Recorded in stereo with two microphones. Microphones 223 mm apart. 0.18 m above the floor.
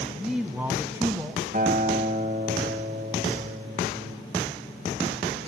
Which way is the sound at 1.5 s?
45° right (ahead or behind).